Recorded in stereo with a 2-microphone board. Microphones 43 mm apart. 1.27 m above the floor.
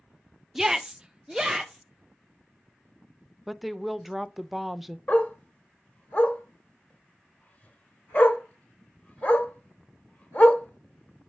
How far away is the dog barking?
About 1.3 m.